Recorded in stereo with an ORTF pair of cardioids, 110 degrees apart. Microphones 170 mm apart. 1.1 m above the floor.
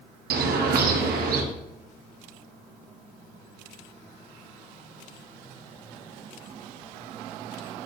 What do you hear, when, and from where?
0.3 s a bird: 65° right, 1.1 m